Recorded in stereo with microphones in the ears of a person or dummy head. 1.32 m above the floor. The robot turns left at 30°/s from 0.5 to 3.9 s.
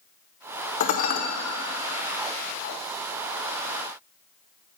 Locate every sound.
0.8 s dishes clattering: 45° left (ahead or behind), 0.7 m; by 1.2 s 50° left (ahead or behind), 0.7 m